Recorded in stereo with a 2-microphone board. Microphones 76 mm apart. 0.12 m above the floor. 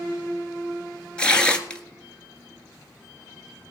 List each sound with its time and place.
1.2 s tearing paper: 15° left (ahead or behind), 1.7 m